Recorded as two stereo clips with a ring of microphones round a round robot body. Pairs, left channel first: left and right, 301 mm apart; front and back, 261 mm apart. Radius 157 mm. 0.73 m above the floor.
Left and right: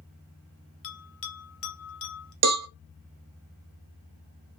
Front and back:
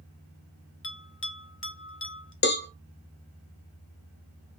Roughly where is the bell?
Ahead left.